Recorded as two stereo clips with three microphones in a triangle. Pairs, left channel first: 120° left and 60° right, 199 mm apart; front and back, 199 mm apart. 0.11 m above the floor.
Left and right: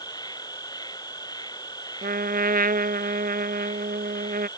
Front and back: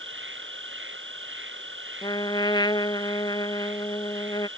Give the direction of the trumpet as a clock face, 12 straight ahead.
2 o'clock.